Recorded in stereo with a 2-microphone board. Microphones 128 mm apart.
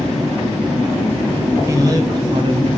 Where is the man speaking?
25° right (ahead or behind), 1.5 m; by 2.7 s 50° right (ahead or behind), 1.7 m.